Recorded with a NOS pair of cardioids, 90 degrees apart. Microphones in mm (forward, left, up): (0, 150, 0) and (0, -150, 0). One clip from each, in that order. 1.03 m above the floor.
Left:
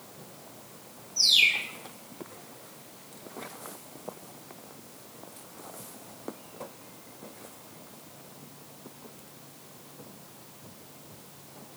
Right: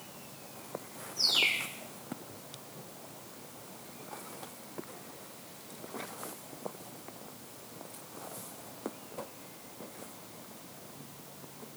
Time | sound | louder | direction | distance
1.2 | a bird | left 6 dB | 65° left | 2.5 m